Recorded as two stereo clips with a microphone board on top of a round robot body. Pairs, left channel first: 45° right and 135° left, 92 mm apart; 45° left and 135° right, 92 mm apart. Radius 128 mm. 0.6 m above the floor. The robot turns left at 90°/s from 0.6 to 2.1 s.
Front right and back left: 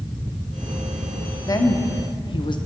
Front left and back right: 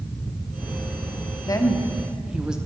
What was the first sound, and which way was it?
A woman speaking, straight ahead.